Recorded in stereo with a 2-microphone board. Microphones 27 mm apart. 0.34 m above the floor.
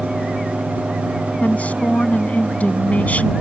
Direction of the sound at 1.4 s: 55° left (ahead or behind).